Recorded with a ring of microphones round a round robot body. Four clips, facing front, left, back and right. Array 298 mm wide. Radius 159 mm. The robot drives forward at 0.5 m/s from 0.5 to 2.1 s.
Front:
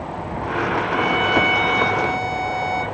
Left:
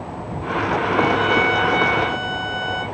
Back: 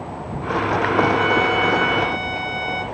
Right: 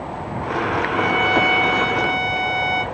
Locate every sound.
0.9 s a violin: 70° right, 1.1 m; by 2.8 s 120° right, 1.1 m